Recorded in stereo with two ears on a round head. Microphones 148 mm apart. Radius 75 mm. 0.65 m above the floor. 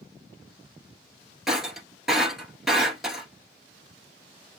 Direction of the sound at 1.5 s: Centre (ahead or behind).